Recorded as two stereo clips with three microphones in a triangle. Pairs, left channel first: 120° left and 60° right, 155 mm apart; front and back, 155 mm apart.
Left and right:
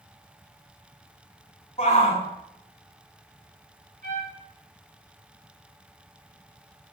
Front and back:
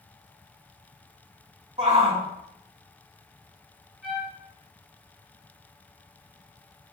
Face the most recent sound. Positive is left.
turn(degrees=-90)